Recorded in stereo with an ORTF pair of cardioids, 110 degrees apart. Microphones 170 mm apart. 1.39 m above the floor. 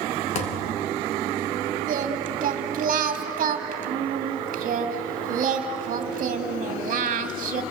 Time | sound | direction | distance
0.3 | a thud | 45° left | 3.5 m
1.9 | singing | 50° right | 2.5 m